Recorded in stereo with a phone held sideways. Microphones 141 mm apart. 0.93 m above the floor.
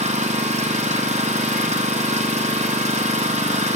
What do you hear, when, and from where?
0.0 s an engine running: 55° right (ahead or behind), 0.8 m